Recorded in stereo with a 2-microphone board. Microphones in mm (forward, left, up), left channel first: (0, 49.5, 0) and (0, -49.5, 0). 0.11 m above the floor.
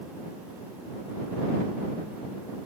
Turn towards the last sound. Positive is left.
No sound to turn to.